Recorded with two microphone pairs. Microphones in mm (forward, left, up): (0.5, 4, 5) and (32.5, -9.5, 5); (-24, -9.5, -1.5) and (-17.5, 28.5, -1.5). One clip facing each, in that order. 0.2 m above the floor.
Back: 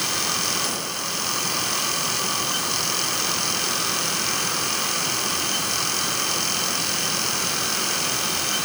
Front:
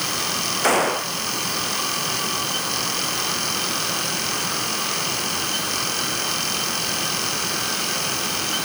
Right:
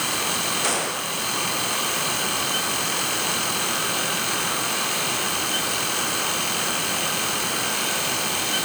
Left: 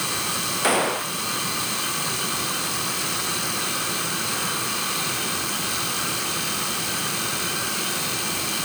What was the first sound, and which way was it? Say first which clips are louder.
A gunshot: front 9 dB, left 3 dB; 10° left.